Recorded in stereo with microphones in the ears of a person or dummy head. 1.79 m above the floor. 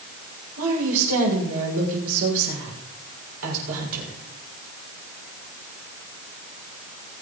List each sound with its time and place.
0.6 s a woman speaking: 80° right, 6.5 m